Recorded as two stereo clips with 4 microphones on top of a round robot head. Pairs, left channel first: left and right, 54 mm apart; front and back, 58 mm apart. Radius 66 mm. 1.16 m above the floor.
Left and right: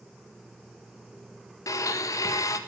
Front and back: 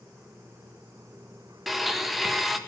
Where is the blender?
90° left, 1.8 m.